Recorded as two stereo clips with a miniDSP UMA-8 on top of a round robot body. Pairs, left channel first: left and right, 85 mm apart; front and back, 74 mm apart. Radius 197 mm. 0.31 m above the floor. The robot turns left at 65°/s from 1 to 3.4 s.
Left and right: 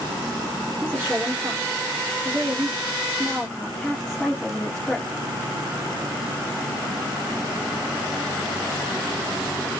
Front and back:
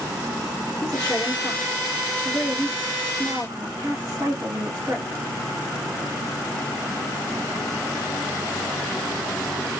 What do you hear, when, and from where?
0.8 s a woman speaking: 40° right, 1.5 m; by 5.1 s 165° left, 1.5 m